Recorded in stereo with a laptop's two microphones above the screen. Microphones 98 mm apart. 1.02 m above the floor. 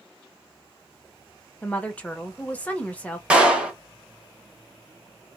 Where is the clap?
10° right (ahead or behind), 0.8 m.